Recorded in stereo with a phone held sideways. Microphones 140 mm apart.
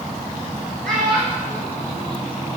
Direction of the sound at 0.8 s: 5° left (ahead or behind).